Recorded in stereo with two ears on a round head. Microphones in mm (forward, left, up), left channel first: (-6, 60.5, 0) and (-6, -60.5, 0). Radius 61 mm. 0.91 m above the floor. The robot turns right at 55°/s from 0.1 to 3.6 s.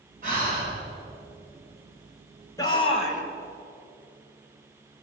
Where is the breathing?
65° right (ahead or behind), 9.5 m; by 0.7 s 90° right, 9.5 m.